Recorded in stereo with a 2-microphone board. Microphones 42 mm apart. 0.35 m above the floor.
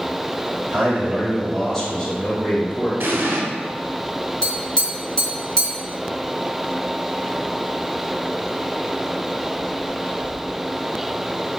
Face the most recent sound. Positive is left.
turn(degrees=20)  # may be behind; listen again after turning